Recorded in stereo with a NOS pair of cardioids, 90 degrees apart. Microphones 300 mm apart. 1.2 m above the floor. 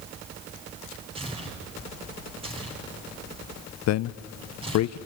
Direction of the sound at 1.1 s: 15° right.